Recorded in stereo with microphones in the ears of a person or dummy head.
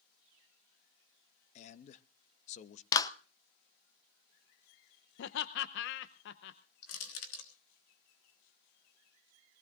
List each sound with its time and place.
1.6 s a man speaking: 40° left (ahead or behind), 0.8 m
2.9 s a clap: 20° left (ahead or behind), 0.7 m
5.2 s laughter: 65° left (ahead or behind), 0.8 m
6.8 s crushing: 80° left, 3 m